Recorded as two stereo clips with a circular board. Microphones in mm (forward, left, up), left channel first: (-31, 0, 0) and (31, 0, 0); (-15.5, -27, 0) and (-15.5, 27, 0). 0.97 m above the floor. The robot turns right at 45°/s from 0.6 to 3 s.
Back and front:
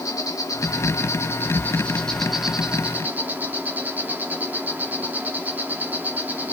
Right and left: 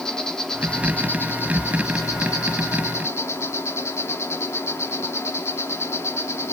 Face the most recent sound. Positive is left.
turn(degrees=-60)